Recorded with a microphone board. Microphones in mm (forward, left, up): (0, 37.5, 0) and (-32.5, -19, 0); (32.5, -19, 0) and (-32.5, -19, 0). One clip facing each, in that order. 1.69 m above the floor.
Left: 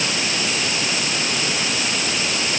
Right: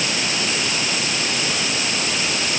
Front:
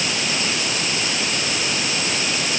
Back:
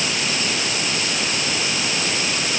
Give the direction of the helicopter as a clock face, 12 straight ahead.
No helicopter in this recording.